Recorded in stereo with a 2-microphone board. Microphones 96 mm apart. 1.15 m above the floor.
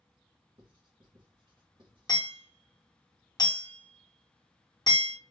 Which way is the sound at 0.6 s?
55° right (ahead or behind).